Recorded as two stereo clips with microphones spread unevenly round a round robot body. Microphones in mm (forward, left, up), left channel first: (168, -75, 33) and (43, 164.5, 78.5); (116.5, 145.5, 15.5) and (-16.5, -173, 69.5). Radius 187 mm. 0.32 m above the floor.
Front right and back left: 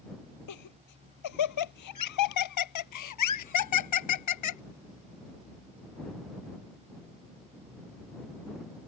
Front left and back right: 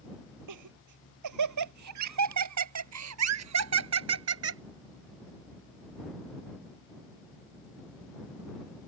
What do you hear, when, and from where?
0.5 s laughter: 80° right; by 4.6 s 60° right